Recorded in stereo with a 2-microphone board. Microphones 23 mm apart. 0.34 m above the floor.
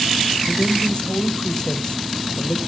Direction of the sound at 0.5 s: 40° left (ahead or behind).